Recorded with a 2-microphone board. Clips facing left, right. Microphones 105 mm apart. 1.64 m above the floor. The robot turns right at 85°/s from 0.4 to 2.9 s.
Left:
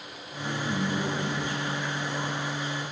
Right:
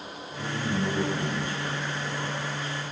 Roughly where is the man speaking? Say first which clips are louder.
Right 1 dB; behind right.